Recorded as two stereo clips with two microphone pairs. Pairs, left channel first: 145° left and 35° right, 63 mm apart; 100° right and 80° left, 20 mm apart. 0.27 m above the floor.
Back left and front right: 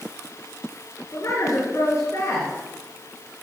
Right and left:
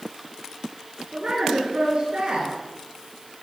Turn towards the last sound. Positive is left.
turn(degrees=115)